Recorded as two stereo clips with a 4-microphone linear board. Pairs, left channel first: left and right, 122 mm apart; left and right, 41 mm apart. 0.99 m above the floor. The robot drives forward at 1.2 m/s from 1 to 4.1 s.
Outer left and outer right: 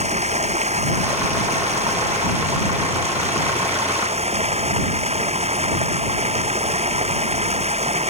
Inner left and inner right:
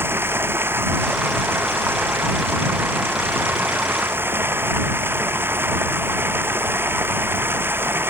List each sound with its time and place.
0.0 s running water: 60° right (ahead or behind)